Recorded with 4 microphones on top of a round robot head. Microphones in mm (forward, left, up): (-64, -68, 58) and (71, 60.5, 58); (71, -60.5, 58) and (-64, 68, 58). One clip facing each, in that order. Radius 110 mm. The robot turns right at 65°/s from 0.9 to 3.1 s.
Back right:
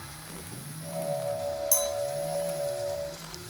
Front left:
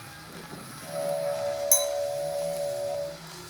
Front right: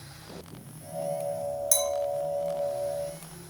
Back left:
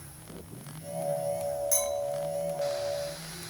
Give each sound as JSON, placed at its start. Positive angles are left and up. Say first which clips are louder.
{"t": 1.7, "sound": "a clink", "louder": "front left 2 dB, front right 2 dB", "azimuth_deg": -35, "distance_m": 1.0}